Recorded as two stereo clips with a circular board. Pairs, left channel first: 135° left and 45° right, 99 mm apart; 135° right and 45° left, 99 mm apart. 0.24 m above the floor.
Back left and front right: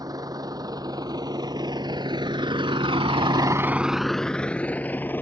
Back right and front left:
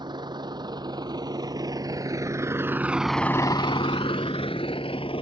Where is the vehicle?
5° left; by 5.2 s 155° right.